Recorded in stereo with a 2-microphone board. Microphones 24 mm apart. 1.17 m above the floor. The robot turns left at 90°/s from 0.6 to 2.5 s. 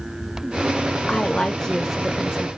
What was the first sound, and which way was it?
A woman speaking, 80° left.